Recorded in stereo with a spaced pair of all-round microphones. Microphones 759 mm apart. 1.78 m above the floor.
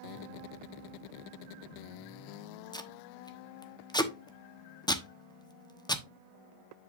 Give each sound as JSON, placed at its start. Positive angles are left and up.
{"t": 2.7, "sound": "tape being pulled", "side_deg": 5, "distance_m": 1.0}